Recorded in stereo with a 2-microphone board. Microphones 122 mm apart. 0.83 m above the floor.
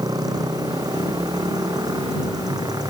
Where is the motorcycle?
30° right (ahead or behind).